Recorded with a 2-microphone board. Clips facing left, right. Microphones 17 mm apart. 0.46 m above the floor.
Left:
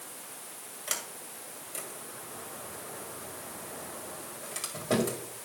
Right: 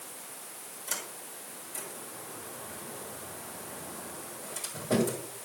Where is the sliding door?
55° left (ahead or behind), 2 m.